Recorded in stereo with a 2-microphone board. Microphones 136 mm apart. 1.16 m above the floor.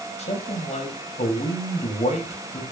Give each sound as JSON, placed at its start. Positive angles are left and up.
{"t": 0.2, "sound": "a man speaking", "side_deg": 55, "distance_m": 5.5}